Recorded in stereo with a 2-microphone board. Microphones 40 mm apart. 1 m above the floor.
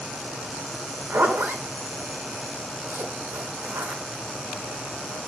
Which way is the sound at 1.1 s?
65° right (ahead or behind).